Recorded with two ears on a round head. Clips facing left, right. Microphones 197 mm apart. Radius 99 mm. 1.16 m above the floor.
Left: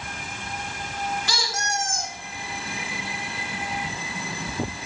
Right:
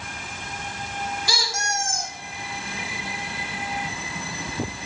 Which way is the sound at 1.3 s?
10° right (ahead or behind).